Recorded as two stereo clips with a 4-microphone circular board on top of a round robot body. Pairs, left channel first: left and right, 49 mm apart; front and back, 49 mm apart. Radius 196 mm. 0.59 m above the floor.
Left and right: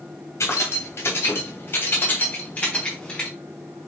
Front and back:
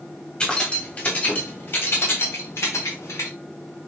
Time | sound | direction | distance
0.4 | keys jangling | 70° left | 3 m